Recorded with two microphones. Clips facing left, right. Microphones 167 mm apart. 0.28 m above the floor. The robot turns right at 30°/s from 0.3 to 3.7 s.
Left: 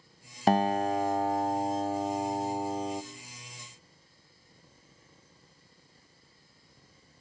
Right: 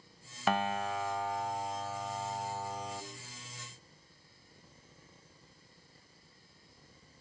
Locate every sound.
0.5 s a guitar: 65° left, 0.8 m; by 3.0 s 140° left, 0.8 m